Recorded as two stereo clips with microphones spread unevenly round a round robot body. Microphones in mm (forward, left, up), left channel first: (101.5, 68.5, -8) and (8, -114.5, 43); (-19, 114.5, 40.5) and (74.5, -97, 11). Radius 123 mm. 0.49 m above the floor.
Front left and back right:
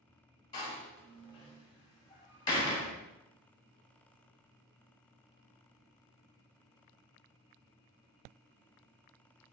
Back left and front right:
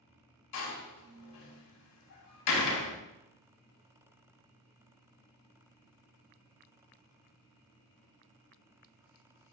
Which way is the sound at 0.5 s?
135° left.